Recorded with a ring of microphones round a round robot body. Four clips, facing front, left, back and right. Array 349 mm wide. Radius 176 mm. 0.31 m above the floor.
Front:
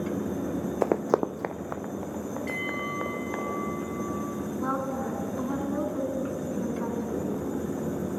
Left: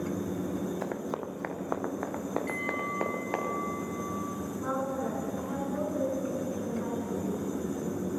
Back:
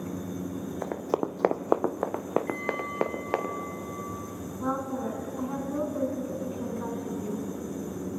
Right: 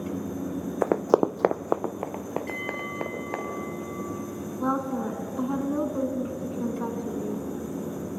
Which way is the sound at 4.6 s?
85° right.